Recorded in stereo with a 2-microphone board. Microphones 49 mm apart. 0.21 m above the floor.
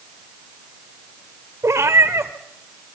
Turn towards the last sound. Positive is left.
turn(degrees=-80)